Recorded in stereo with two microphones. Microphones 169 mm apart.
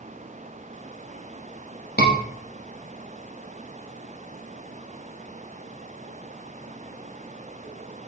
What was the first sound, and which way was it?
A scream, 70° left (ahead or behind).